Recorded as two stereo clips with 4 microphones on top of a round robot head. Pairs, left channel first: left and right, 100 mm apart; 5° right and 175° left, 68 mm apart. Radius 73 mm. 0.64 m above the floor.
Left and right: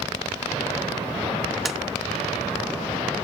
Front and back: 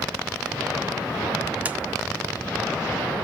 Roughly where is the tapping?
Behind.